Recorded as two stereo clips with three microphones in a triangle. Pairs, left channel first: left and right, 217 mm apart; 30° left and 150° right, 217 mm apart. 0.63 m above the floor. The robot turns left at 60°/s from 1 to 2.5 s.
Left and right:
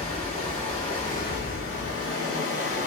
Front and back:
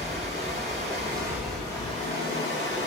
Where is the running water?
150° left, 2.5 m; by 2.9 s 60° left, 2.5 m.